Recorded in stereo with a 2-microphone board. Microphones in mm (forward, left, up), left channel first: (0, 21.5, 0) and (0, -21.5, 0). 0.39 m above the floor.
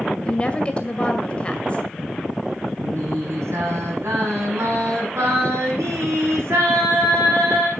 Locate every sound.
0.2 s a woman speaking: 25° left (ahead or behind), 2 m
2.8 s singing: 85° right, 6 m